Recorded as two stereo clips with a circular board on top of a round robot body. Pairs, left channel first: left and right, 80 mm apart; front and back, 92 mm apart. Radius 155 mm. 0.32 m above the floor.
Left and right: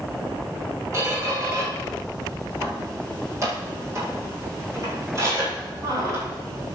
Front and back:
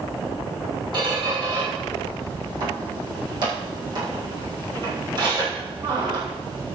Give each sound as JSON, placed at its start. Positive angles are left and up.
{"t": 0.9, "sound": "a squeak", "azimuth_deg": -145, "distance_m": 8.0}